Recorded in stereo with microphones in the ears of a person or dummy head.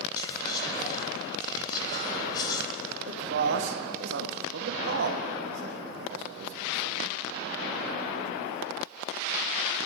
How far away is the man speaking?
About 1.0 m.